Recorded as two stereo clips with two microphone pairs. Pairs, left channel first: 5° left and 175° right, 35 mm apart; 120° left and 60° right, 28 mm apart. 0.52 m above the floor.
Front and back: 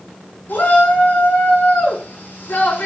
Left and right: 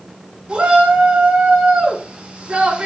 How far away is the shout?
About 5 m.